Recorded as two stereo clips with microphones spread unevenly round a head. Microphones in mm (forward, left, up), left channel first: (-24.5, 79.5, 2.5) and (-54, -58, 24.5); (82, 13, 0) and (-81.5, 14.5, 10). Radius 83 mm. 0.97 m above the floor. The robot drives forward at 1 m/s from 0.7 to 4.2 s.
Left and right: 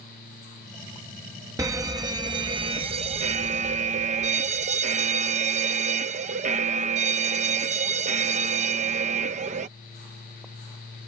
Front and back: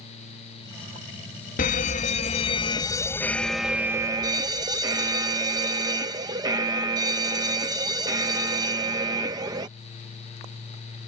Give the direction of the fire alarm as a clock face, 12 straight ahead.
1 o'clock.